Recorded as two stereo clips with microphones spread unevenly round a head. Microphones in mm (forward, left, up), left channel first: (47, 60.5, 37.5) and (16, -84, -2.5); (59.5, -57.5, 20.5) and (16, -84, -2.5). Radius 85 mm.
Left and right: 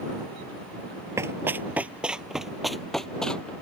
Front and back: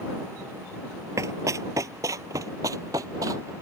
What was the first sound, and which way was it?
Running footsteps, 170° left.